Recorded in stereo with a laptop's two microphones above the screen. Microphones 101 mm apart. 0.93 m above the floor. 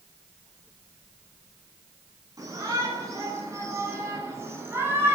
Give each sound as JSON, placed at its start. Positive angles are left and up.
{"t": 2.4, "sound": "a shout", "side_deg": -35, "distance_m": 9.5}